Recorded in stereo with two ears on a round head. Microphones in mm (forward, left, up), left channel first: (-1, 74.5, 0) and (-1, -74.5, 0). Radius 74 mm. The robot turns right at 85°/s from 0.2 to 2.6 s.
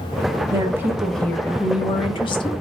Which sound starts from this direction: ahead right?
A woman speaking, at 0.5 s.